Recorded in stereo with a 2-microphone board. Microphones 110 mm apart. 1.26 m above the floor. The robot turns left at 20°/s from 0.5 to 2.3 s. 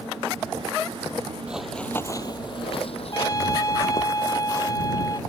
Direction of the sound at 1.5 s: 10° right (ahead or behind).